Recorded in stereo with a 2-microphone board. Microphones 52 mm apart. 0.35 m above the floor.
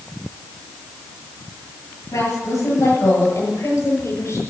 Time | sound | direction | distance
2.1 | a woman speaking | 70° left (ahead or behind) | 7.5 m